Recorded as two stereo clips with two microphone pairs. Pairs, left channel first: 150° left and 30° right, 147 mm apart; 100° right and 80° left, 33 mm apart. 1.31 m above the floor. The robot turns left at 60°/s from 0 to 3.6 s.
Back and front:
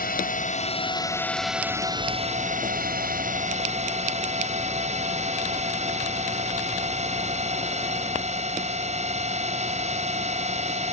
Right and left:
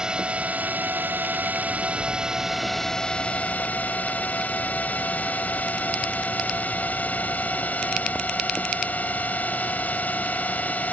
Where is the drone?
145° left; by 10.9 s 70° right.